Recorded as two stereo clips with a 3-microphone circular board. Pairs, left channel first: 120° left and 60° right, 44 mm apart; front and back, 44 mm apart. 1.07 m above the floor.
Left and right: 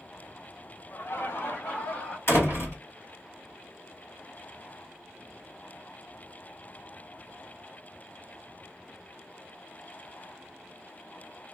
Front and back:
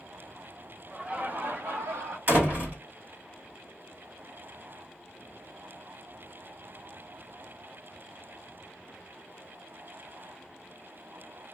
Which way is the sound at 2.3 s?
140° left.